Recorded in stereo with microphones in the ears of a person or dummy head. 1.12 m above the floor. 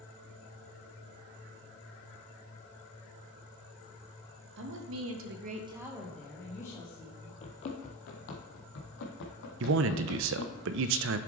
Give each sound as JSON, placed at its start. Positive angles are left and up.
{"t": 4.6, "sound": "a woman speaking", "side_deg": -65, "distance_m": 1.5}
{"t": 7.4, "sound": "running footsteps", "side_deg": 30, "distance_m": 1.3}
{"t": 9.6, "sound": "a man speaking", "side_deg": -60, "distance_m": 0.6}